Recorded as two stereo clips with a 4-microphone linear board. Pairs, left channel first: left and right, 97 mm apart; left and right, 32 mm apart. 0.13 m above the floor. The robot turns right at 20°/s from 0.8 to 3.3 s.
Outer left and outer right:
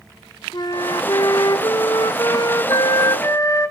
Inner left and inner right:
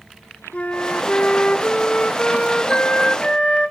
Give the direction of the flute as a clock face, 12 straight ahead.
9 o'clock.